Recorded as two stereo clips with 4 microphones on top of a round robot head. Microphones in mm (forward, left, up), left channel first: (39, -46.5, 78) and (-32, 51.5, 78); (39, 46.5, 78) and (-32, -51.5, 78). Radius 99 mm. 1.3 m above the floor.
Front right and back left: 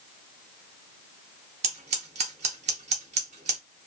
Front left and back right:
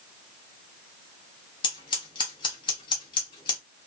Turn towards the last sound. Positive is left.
turn(degrees=100)